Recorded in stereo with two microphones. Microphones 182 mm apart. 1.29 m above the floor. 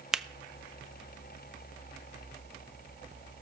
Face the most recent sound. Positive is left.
turn(degrees=-5)  # may be behind; listen again after turning